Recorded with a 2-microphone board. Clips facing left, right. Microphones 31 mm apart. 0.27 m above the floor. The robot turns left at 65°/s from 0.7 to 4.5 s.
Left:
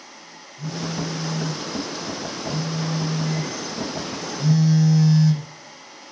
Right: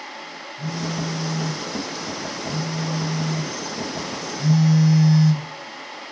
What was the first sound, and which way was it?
A phone buzzing, 120° right.